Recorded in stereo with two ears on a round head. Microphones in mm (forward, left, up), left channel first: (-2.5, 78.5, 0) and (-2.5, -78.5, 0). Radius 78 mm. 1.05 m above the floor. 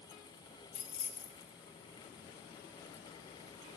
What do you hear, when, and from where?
0.7 s keys jangling: 75° left (ahead or behind), 2.5 m